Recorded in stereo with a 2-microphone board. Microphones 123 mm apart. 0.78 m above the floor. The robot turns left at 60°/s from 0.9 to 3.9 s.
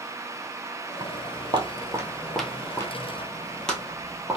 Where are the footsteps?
35° right (ahead or behind), 1.1 m; by 4.4 s 10° right (ahead or behind), 1.2 m.